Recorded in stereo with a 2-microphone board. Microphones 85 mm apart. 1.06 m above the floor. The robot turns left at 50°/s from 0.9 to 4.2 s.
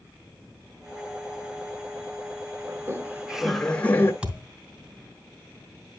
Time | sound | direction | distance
2.7 | laughter | 140° right | 1.7 m
4.2 | a thud | 15° right (ahead or behind) | 2.5 m